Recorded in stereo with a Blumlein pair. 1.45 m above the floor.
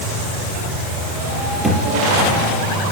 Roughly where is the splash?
No splash in this recording.